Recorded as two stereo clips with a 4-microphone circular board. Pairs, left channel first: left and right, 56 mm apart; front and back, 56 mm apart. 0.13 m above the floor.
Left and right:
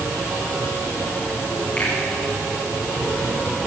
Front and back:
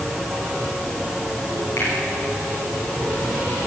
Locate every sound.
1.8 s a finger snap: 30° left, 9 m